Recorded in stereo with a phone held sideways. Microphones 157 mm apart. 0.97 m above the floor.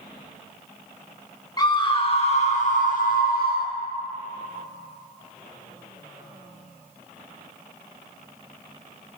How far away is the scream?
About 1.4 m.